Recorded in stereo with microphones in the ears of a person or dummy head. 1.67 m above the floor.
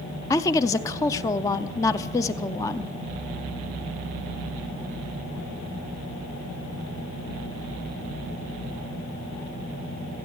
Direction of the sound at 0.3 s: 15° left (ahead or behind).